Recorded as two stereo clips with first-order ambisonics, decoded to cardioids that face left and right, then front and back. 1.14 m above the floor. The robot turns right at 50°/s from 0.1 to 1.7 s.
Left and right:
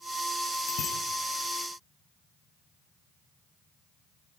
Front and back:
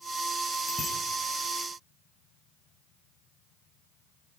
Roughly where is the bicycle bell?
Left.